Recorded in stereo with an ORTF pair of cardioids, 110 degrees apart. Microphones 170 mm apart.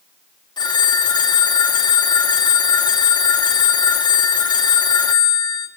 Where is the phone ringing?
25° left, 1.9 m.